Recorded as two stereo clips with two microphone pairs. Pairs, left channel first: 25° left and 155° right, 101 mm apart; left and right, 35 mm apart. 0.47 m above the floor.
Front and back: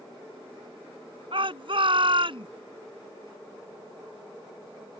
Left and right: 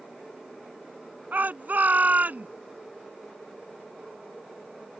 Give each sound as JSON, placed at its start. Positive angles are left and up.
{"t": 1.3, "sound": "a shout", "azimuth_deg": -125}